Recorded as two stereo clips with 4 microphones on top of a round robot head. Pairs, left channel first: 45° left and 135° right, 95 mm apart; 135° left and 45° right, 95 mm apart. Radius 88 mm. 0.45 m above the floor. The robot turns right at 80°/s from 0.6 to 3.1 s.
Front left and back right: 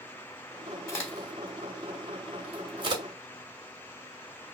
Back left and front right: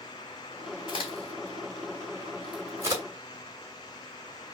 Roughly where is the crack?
Left.